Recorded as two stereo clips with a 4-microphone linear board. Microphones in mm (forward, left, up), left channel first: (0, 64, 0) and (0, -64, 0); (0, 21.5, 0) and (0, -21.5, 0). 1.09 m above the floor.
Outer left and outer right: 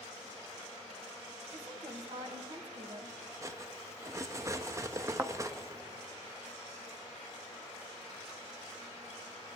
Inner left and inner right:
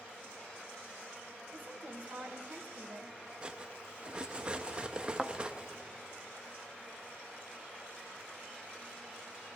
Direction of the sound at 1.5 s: 45° right (ahead or behind).